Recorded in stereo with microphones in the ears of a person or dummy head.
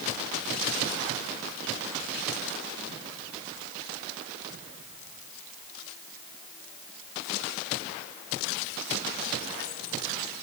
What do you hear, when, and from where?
Only background noise.